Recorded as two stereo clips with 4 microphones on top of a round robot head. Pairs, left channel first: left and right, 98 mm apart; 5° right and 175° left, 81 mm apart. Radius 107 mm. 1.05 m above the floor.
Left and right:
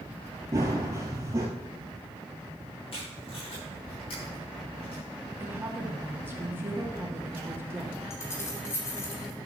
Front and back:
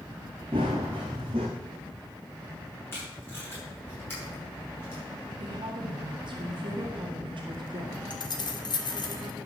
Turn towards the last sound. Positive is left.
turn(degrees=25)